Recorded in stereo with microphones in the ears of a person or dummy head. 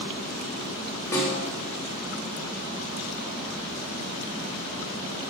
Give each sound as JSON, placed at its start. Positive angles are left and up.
{"t": 1.1, "sound": "a snare drum", "side_deg": 20, "distance_m": 1.3}